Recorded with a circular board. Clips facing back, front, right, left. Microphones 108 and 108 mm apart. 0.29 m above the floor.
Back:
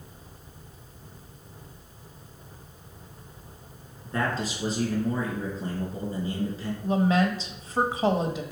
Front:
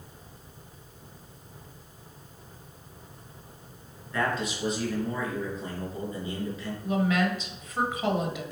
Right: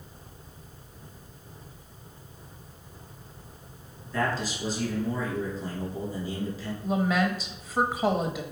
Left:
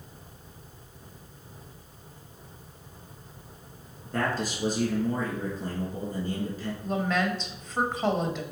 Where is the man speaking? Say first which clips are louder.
Even, even; 125° left, 3 m.